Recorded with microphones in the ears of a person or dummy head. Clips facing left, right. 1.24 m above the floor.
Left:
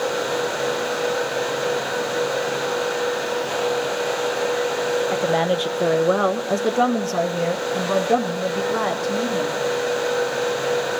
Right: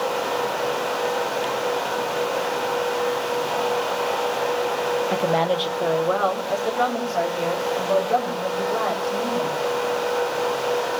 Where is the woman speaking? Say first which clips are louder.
Left 1 dB; 5° right (ahead or behind), 0.5 m; by 9.6 s 70° left (ahead or behind), 2.5 m.